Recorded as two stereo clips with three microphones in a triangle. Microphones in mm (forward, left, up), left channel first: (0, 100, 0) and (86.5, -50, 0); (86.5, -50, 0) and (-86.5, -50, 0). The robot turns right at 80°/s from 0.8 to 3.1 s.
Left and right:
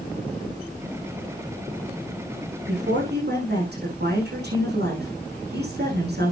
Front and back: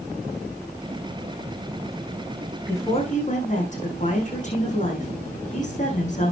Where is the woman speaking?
80° right, 9 m; by 6.3 s 45° right, 9 m.